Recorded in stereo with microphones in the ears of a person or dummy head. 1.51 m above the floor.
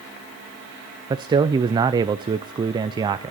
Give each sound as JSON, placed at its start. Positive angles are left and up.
{"t": 1.1, "sound": "a man speaking", "side_deg": -20, "distance_m": 0.5}